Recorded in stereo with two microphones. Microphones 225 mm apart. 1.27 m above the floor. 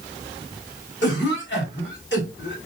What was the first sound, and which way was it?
A cough, 60° left (ahead or behind).